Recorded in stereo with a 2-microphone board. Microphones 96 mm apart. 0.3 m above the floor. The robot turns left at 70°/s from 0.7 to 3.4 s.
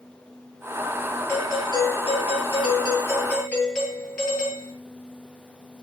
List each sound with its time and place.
1.3 s a doorbell: 155° left, 8.5 m; by 4.7 s 10° left, 8.5 m